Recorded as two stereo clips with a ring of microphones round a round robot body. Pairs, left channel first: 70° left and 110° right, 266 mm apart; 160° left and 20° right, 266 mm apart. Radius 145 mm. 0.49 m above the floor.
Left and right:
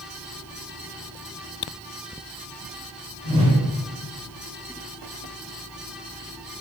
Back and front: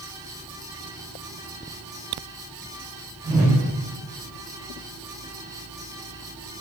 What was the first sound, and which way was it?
A whoosh, 85° right.